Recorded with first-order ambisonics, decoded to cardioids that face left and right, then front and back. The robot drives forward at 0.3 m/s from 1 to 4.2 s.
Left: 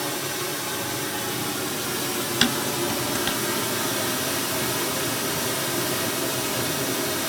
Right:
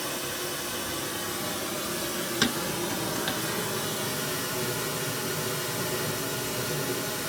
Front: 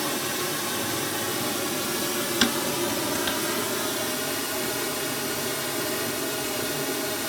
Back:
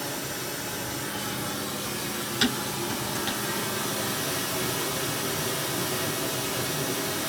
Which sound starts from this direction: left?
Dishes clattering, at 2.4 s.